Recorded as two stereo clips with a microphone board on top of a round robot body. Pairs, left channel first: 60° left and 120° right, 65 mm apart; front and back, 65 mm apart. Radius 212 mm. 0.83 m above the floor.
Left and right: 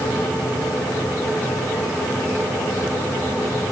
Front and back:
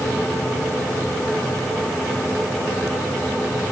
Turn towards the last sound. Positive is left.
No sound to turn to.